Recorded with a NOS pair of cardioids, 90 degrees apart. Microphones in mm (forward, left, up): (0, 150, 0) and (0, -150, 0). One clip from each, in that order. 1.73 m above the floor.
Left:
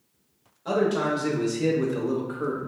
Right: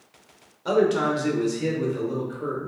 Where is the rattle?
No rattle in this recording.